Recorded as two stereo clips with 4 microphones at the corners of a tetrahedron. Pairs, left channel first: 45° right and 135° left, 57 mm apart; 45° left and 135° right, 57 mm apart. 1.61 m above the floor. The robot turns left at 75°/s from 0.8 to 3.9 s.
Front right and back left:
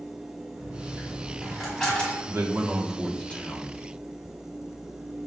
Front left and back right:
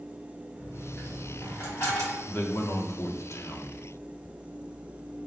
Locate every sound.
0.5 s a dropped coin: 125° left, 2 m; by 2.2 s 20° left, 2 m
2.3 s a man speaking: 100° left, 0.8 m; by 3.8 s 10° right, 0.8 m